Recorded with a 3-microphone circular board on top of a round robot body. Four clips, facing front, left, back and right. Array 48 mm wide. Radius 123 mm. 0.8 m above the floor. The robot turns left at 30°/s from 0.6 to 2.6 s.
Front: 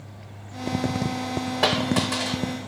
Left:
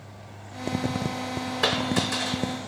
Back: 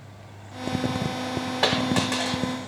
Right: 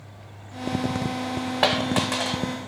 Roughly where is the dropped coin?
Right.